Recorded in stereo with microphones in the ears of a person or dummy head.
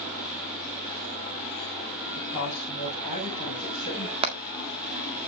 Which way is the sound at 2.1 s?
30° left (ahead or behind).